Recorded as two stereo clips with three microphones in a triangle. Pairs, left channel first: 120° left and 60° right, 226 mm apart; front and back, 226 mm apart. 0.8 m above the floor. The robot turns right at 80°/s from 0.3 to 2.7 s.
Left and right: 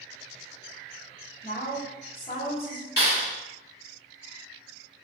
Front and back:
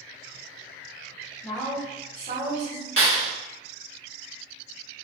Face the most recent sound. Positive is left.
turn(degrees=160)